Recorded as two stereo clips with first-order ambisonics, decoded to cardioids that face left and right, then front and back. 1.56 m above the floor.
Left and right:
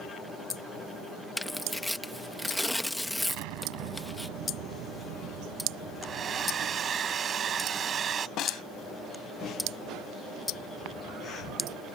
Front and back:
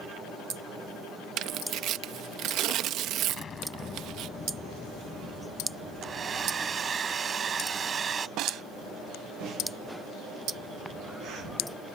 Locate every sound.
1.4 s tearing paper: straight behind
3.3 s an explosion: 70° right
6.0 s a hair dryer: 130° right
8.4 s a snare drum: 140° left